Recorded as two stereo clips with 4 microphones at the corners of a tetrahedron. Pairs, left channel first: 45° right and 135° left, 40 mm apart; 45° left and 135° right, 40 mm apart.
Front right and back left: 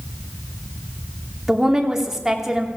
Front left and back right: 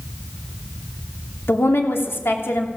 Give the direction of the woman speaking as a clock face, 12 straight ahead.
10 o'clock.